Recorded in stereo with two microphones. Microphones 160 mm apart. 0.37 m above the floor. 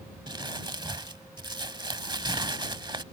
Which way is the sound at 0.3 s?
30° right (ahead or behind).